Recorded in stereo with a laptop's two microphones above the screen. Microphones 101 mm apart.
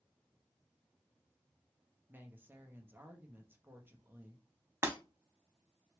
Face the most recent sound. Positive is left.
turn(degrees=-25)  # may be behind; listen again after turning